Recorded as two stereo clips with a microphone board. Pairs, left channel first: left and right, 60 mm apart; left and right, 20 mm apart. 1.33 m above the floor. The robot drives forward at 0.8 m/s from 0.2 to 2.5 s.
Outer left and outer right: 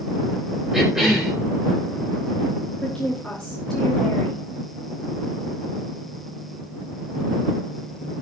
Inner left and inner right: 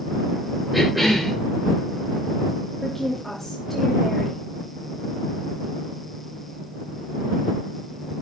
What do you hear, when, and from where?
0.7 s a cough: 5° right (ahead or behind), 4.5 m
2.8 s a woman speaking: 10° left (ahead or behind), 3 m